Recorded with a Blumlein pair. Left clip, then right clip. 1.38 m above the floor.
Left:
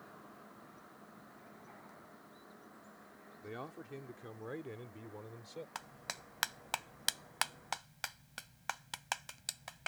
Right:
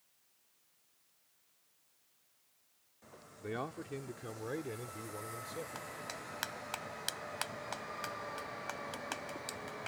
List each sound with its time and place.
3.4 s a man speaking: 20° right; by 5.7 s 5° right
5.8 s a clap: 15° left